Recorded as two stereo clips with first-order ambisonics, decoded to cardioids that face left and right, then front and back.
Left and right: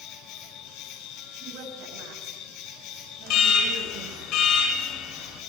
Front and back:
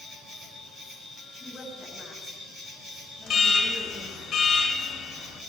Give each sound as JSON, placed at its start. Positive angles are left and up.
{"t": 0.0, "sound": "an insect", "azimuth_deg": 110, "distance_m": 6.0}
{"t": 1.3, "sound": "a woman speaking", "azimuth_deg": -80, "distance_m": 8.5}
{"t": 3.3, "sound": "an alarm", "azimuth_deg": 60, "distance_m": 4.0}